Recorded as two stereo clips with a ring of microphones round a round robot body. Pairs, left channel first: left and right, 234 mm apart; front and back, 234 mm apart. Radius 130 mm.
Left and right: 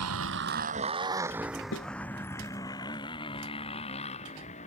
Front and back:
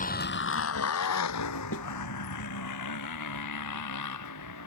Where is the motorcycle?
55° right; by 4.7 s 25° left.